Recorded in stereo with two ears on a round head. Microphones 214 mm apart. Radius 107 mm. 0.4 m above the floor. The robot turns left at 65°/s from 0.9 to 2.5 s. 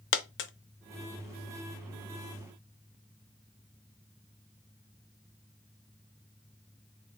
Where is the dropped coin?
55° left (ahead or behind), 0.5 m.